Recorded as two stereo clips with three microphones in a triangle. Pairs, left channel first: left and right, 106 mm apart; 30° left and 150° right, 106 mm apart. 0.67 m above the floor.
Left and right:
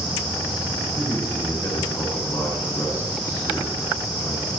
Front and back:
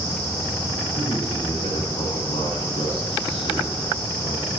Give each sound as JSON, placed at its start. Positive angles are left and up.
{"t": 0.9, "sound": "a man speaking", "azimuth_deg": 35, "distance_m": 7.0}